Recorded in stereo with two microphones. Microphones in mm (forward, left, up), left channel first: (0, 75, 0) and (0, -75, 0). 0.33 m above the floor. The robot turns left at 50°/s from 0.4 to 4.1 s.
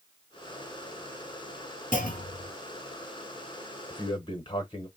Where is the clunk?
60° left (ahead or behind), 0.9 m; by 2.5 s 80° left, 0.9 m.